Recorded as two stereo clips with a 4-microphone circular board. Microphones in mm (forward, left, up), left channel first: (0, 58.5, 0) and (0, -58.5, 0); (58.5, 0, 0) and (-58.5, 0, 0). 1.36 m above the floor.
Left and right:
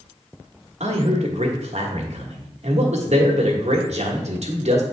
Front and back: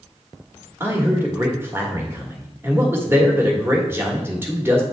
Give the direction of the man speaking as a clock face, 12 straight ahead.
4 o'clock.